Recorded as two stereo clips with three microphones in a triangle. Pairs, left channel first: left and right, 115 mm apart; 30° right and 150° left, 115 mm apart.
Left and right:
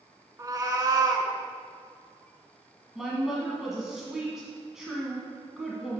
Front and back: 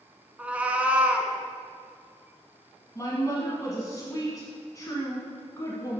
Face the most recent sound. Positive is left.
turn(degrees=-5)